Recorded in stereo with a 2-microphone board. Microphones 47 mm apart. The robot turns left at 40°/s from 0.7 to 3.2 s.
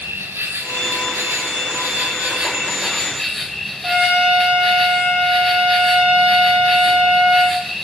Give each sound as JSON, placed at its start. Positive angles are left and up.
{"t": 0.0, "sound": "an insect", "azimuth_deg": -80, "distance_m": 1.5}
{"t": 3.8, "sound": "a trumpet", "side_deg": -35, "distance_m": 7.0}